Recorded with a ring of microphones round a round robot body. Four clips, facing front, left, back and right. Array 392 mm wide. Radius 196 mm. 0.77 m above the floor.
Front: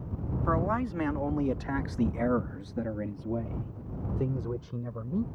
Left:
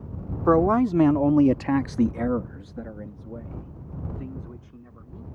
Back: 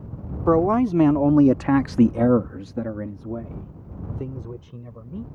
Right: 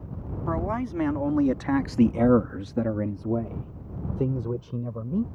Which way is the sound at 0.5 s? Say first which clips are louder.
Left 10 dB, back 11 dB; 140° left.